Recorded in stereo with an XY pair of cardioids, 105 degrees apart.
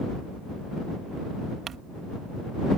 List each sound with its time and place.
1.7 s crumpling: 55° right